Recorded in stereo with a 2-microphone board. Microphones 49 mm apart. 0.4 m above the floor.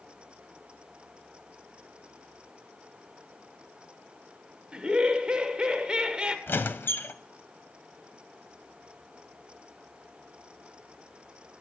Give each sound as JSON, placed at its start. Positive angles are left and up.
{"t": 4.7, "sound": "laughter", "side_deg": -20, "distance_m": 1.1}
{"t": 6.5, "sound": "a squeak", "side_deg": 50, "distance_m": 0.5}